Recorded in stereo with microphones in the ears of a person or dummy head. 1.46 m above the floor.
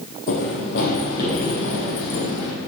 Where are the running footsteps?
45° left (ahead or behind), 3 m; by 2.5 s 65° left (ahead or behind), 3 m.